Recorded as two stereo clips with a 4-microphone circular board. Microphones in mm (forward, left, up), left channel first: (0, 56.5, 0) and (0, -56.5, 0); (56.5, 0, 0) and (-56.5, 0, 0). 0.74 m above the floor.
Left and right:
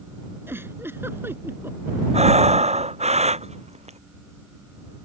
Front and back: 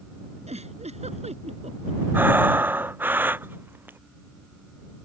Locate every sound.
0.5 s a giggle: 160° right
2.1 s breathing: 105° right